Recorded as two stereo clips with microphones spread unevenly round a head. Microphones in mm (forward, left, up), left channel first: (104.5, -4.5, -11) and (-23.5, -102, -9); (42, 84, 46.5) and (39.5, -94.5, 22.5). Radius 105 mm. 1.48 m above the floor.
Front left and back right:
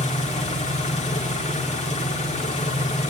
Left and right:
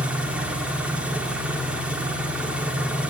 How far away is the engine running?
About 2 m.